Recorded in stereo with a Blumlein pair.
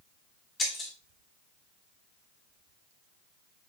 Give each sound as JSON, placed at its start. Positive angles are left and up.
{"t": 0.6, "sound": "breaking glass", "azimuth_deg": 20, "distance_m": 3.5}